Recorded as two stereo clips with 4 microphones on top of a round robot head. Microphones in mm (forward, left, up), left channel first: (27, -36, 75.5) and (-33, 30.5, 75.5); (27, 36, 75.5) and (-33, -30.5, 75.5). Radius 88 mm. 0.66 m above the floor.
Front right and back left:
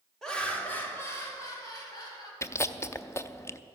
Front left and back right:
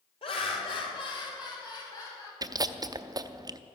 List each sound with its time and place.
0.2 s laughter: 35° left, 2.5 m; by 2.3 s 5° right, 4.5 m
2.4 s chewing: 100° right, 0.6 m